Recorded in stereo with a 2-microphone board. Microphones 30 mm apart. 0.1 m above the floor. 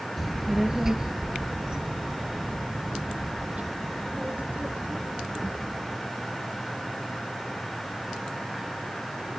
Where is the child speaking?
Centre (ahead or behind); by 6.0 s 55° right (ahead or behind).